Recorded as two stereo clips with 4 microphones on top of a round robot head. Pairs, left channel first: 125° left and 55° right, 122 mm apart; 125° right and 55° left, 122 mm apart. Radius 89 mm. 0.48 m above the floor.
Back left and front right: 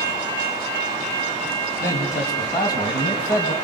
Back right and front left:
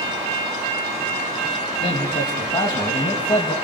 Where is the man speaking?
165° right, 4 m; by 3.5 s 175° left, 4 m.